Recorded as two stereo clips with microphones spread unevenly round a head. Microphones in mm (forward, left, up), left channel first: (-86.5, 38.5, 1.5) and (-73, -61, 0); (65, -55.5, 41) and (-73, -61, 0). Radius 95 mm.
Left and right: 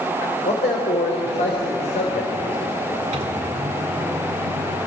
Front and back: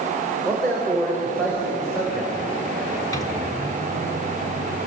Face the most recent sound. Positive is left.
turn(degrees=-65)